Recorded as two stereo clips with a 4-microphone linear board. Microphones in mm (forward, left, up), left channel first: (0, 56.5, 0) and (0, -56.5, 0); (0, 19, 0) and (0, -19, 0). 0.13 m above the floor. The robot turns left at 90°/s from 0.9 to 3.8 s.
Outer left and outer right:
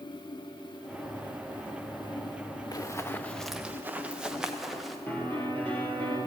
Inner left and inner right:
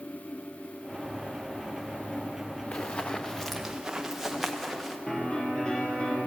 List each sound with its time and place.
2.7 s running footsteps: 35° left (ahead or behind), 0.7 m; by 5.0 s centre (ahead or behind), 1.8 m
5.1 s a piano: 20° left (ahead or behind), 3 m